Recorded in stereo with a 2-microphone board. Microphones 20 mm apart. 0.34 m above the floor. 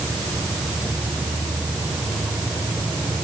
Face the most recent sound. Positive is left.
No sound to turn to.